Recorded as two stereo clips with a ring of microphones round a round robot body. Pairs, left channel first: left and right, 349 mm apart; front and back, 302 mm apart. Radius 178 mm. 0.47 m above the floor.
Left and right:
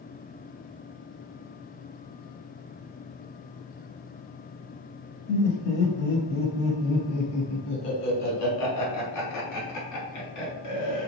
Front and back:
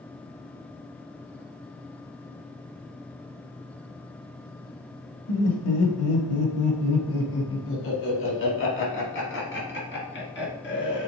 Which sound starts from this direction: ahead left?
Laughter, at 5.3 s.